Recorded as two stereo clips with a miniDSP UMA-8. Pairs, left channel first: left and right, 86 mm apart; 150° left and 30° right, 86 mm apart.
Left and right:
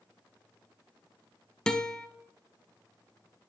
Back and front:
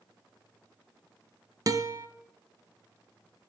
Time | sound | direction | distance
1.7 | a guitar | 10° left | 0.6 m